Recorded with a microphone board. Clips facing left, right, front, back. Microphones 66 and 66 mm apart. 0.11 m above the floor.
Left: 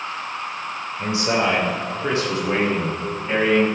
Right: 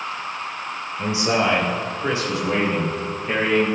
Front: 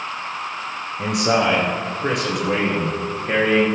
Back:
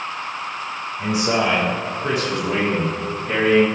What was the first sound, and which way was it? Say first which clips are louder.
A man speaking: even, front 1 dB; 25° right.